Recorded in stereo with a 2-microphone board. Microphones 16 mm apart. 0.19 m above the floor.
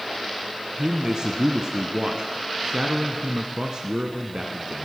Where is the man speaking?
50° right (ahead or behind), 1.6 m.